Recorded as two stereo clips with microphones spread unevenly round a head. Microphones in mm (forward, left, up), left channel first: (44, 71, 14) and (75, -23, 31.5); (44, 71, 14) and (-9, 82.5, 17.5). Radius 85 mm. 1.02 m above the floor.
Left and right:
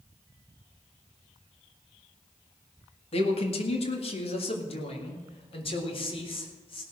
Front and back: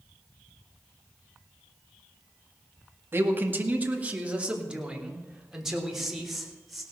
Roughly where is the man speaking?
Behind left.